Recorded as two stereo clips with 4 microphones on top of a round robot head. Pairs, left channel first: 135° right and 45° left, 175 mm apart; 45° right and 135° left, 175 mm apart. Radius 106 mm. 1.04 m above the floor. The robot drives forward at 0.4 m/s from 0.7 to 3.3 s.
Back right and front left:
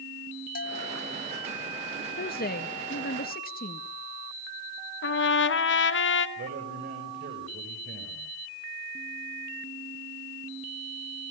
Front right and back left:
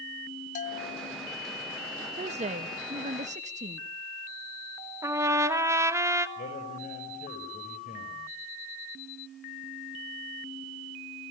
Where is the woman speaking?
170° right, 1.5 m; by 3.9 s 175° right, 1.9 m.